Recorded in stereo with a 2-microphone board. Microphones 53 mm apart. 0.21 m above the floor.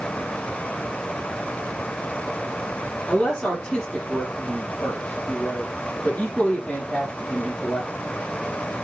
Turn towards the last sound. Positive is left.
turn(degrees=10)  # may be behind; listen again after turning